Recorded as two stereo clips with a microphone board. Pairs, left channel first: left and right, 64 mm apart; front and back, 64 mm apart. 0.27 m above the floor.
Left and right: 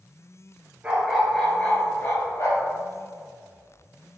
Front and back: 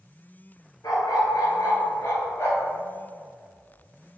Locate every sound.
0.8 s a dog barking: 20° right, 2.0 m; by 2.7 s 50° left, 3 m